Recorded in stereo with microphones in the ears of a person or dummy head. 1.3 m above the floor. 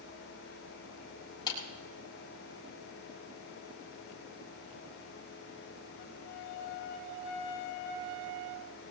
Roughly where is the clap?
Left.